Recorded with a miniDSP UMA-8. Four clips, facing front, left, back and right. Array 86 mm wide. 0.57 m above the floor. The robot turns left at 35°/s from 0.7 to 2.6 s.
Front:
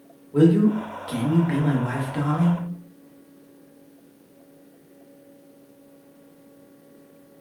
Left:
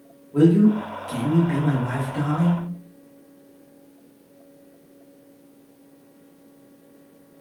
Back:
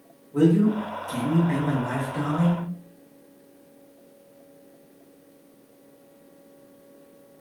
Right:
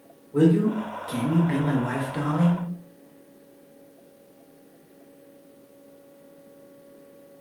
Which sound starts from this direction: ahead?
A man speaking, at 0.3 s.